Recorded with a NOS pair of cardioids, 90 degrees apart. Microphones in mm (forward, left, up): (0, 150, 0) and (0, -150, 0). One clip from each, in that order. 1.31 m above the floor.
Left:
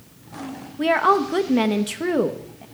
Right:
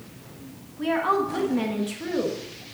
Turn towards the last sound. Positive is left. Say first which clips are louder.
# left 6 dB
turn(degrees=55)